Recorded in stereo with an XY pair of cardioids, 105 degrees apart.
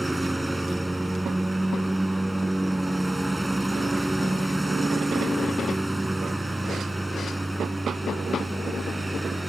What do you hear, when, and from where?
0.0 s a lawn mower: 10° right